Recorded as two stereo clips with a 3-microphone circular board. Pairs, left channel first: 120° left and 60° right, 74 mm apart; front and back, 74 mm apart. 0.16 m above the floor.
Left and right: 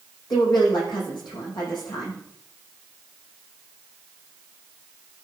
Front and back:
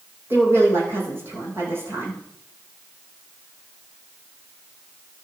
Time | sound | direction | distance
0.3 | a woman speaking | 120° left | 6 m